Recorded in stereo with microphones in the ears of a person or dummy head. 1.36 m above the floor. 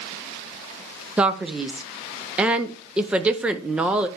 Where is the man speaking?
10° right (ahead or behind), 0.5 m.